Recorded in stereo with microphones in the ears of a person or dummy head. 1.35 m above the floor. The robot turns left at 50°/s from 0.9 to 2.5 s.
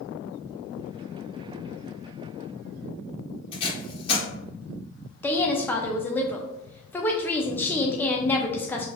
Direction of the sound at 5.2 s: Centre (ahead or behind).